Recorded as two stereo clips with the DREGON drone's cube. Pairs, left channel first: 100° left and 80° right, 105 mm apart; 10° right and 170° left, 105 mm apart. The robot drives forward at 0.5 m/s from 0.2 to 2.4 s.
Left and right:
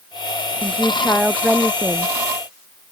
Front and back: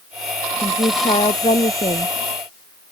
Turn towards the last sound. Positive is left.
turn(degrees=5)